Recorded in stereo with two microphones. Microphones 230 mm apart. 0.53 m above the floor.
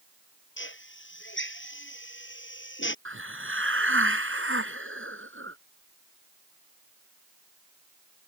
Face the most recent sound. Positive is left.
turn(degrees=-65)  # may be behind; listen again after turning